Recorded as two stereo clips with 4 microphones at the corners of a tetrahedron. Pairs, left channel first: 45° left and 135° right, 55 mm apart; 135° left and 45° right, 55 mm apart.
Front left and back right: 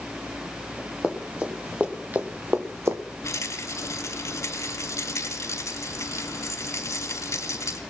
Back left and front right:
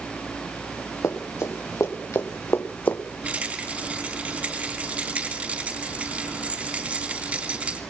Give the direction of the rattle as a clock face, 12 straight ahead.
11 o'clock.